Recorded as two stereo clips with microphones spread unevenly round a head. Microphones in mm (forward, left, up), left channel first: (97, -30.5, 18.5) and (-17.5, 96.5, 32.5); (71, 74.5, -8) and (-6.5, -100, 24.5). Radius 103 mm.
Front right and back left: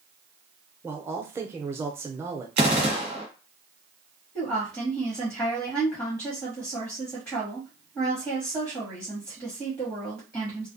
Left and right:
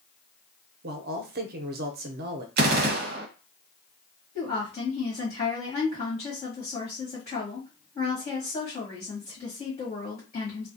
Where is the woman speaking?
20° left, 1.6 m.